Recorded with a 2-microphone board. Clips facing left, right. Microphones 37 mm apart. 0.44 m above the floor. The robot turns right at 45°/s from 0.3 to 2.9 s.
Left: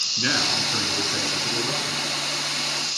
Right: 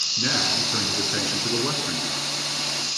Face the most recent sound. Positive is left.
turn(degrees=-85)